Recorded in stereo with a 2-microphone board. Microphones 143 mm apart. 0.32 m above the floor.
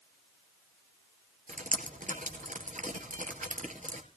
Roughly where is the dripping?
Right.